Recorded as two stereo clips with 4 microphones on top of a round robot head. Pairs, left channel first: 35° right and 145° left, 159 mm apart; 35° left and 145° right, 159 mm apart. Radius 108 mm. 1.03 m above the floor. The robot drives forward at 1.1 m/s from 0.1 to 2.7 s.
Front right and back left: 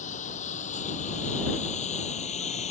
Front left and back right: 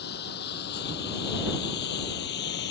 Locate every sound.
0.0 s a lawn mower: 10° left; by 2.7 s 15° left